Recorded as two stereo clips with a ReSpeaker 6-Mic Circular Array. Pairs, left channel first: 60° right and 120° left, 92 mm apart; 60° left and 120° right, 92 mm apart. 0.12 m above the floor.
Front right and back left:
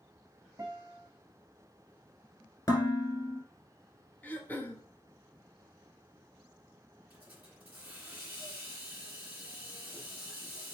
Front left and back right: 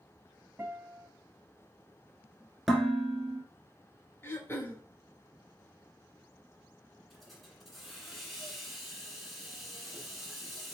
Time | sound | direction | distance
0.6 | a guitar | 170° left | 1.3 m
2.7 | dishes clattering | 30° right | 1.2 m
4.2 | throat clearing | 5° left | 0.7 m
7.1 | a hiss | 150° left | 1.6 m